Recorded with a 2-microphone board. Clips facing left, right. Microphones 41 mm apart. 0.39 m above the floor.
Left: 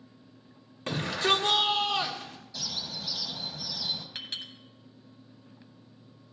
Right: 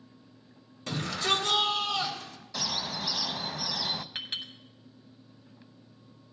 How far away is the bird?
About 0.5 m.